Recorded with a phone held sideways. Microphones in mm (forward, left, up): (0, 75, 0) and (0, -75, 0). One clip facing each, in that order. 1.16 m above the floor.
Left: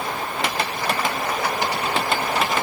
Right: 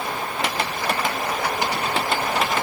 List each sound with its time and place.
Only background noise.